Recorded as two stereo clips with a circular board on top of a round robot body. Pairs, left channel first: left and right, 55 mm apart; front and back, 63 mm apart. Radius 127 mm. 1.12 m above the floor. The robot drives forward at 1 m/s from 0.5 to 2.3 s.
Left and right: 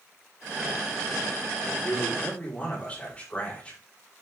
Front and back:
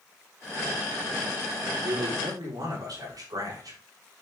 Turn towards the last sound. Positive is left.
turn(degrees=160)